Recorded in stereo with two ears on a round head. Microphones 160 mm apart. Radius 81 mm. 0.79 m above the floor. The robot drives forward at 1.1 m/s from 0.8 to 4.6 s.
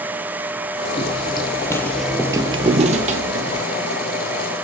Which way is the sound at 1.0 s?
30° left (ahead or behind).